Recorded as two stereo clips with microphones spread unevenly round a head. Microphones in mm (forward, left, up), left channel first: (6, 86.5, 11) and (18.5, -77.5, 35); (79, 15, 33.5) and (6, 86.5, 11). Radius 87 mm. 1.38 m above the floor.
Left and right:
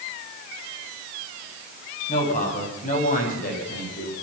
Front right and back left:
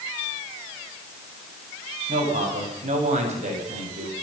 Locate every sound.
2.1 s a man speaking: 145° left, 9 m; by 4.1 s 130° left, 6.5 m